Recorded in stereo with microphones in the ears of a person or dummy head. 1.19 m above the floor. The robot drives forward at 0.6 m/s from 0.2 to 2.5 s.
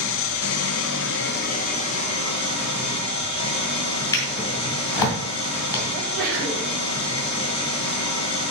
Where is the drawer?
20° left (ahead or behind), 1.9 m.